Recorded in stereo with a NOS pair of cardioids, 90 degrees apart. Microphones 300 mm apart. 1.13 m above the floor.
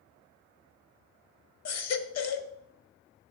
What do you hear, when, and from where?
1.6 s a baby crying: 55° left, 0.9 m